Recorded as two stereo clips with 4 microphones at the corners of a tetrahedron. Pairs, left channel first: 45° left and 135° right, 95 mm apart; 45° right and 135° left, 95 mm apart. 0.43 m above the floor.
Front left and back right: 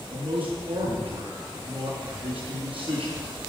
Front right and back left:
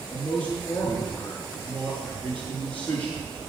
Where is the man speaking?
120° right, 6 m.